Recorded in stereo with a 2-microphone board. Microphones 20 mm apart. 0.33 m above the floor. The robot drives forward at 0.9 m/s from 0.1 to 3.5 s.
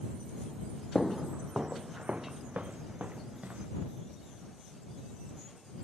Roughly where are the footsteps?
Centre.